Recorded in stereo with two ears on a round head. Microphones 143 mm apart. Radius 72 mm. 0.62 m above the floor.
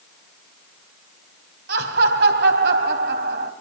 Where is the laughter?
75° right (ahead or behind), 3 m.